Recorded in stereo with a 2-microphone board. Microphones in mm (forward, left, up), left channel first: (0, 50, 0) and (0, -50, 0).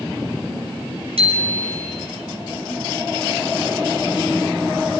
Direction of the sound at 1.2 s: 75° right (ahead or behind).